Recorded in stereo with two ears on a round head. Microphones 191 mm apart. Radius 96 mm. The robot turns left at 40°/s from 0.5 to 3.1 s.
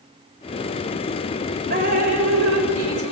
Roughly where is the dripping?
Ahead right.